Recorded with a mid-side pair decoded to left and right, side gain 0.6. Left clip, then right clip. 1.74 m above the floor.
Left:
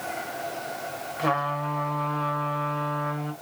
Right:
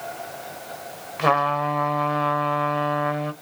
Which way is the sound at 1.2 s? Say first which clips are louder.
Right 6 dB; 35° right.